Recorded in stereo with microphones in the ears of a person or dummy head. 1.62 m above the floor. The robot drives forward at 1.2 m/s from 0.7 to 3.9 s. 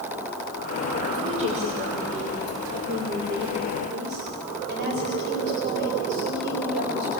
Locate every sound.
1.2 s a woman speaking: 35° right (ahead or behind), 6.5 m; by 7.2 s 60° right (ahead or behind), 4.5 m